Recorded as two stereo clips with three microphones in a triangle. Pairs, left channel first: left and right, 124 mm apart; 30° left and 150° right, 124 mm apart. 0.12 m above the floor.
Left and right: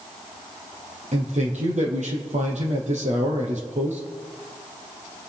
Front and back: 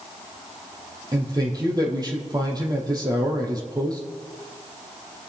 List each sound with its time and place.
1.1 s a man speaking: 95° right, 4.5 m